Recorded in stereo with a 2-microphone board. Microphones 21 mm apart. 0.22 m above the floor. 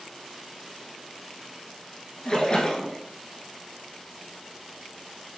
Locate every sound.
2.2 s a splash: 35° left (ahead or behind), 1.1 m